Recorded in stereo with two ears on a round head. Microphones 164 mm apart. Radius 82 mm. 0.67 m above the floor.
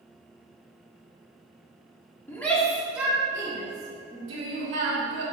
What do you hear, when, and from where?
2.3 s a shout: 10° left (ahead or behind), 1.3 m; by 5.2 s 40° right (ahead or behind), 2.5 m